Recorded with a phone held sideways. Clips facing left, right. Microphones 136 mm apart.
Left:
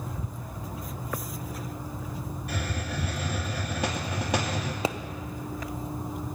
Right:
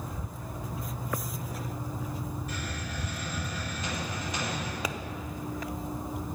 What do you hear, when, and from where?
2.5 s a hiss: 65° left (ahead or behind), 2 m
4.8 s a pop: 25° left (ahead or behind), 0.5 m